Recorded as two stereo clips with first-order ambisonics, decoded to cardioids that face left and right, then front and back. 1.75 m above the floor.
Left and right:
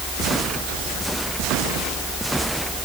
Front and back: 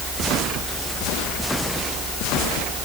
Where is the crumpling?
No crumpling in this recording.